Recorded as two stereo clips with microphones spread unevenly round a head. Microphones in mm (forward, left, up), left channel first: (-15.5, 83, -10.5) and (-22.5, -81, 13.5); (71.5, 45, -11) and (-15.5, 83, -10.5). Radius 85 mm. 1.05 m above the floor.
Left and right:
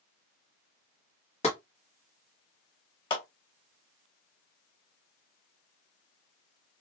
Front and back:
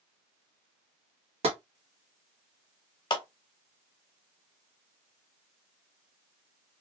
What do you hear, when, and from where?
1.4 s tapping: 140° left, 1.2 m
3.1 s a clap: 20° left, 1.3 m